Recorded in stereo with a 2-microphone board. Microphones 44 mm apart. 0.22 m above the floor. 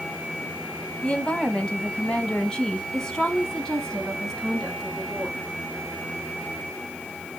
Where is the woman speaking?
25° left (ahead or behind), 1.5 m; by 5.5 s 5° left (ahead or behind), 3 m.